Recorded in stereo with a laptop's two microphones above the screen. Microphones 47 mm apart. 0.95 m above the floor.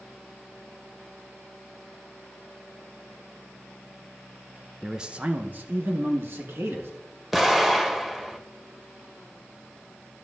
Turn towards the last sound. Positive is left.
turn(degrees=-5)  # may be behind; listen again after turning